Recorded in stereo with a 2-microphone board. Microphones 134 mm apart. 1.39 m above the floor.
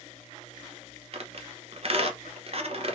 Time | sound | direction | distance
1.1 | a squeak | 50° right (ahead or behind) | 0.8 m